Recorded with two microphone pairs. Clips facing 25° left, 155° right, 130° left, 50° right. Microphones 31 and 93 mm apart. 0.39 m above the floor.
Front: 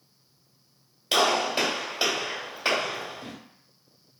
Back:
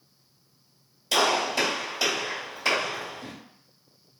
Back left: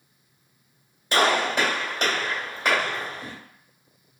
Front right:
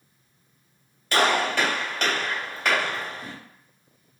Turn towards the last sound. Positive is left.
turn(degrees=70)